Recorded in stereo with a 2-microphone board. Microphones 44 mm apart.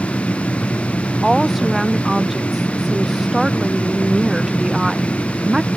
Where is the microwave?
I don't hear a microwave.